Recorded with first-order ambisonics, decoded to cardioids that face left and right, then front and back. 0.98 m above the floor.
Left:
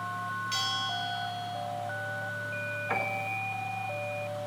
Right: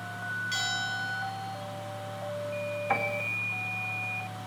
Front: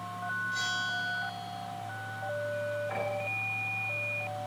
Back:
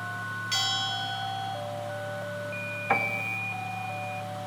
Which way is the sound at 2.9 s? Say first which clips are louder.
Right 2 dB, back 6 dB; 160° right.